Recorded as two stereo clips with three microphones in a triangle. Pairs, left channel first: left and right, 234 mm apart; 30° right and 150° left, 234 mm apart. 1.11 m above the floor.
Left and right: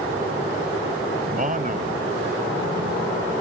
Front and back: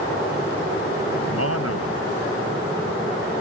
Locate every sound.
1.2 s a man speaking: 35° right